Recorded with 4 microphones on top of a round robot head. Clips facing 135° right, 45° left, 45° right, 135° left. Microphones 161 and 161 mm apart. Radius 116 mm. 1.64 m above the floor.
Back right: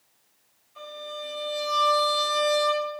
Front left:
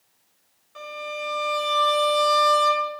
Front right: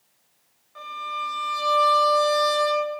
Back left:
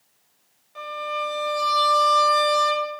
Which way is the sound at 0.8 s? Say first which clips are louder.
Front left 4 dB, back left 6 dB; 65° left.